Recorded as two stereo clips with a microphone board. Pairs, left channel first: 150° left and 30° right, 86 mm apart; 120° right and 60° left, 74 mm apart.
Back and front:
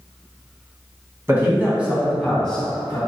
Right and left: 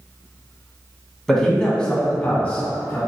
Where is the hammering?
No hammering in this recording.